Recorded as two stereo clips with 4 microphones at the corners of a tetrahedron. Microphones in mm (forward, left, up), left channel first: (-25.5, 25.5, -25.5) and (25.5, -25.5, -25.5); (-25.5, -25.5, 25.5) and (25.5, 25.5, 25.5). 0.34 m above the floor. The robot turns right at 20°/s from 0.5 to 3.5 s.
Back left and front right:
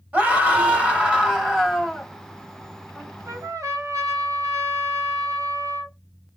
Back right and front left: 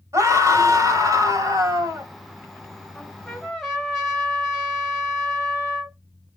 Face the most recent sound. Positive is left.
turn(degrees=-50)